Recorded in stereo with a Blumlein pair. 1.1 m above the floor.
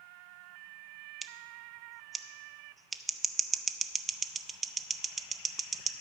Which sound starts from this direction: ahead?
Scissors, at 1.2 s.